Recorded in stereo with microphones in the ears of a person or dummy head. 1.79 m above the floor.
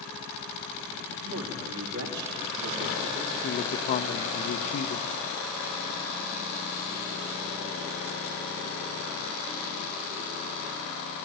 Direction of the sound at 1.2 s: 80° right.